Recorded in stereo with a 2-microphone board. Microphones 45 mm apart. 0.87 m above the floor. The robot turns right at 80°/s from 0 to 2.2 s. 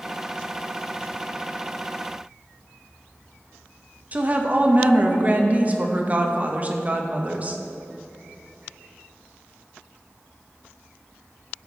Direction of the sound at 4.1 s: 30° right (ahead or behind).